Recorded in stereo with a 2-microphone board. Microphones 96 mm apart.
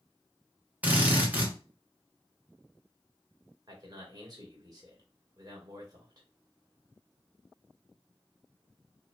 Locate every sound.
0.8 s a drill: 15° right (ahead or behind), 1.5 m
3.7 s a man speaking: 45° right (ahead or behind), 1.9 m